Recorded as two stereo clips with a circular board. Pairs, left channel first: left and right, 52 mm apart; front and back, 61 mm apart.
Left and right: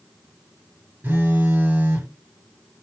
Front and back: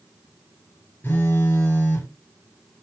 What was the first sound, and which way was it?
A phone buzzing, 45° right.